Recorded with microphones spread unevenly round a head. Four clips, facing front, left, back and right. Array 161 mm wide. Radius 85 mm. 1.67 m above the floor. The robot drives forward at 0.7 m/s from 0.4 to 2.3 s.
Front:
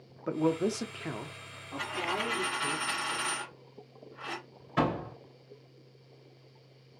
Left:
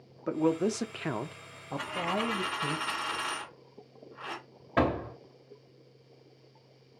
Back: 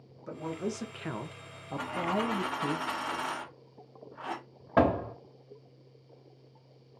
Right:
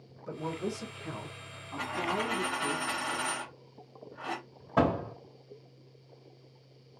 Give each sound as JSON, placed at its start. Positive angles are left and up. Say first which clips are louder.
{"t": 0.3, "sound": "a man speaking", "louder": "left 8 dB, front 7 dB", "azimuth_deg": 45, "distance_m": 0.8}
{"t": 1.8, "sound": "a dropped coin", "louder": "even, back 3 dB", "azimuth_deg": -155, "distance_m": 1.5}
{"t": 4.8, "sound": "a door slam", "louder": "right 1 dB, back 5 dB", "azimuth_deg": 180, "distance_m": 2.0}